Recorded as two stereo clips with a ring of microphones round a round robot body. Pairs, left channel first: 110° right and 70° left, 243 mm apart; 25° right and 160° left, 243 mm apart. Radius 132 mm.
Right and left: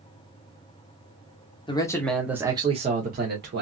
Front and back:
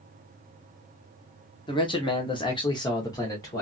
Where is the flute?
I don't hear a flute.